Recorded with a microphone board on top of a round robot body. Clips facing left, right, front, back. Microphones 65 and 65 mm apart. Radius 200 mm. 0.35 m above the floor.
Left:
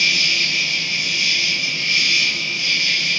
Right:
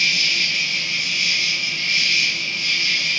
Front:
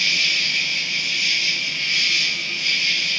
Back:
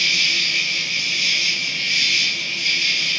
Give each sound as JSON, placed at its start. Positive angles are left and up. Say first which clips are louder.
{"t": 0.0, "sound": "an insect", "louder": "left 1 dB, back 1 dB", "azimuth_deg": -145, "distance_m": 2.5}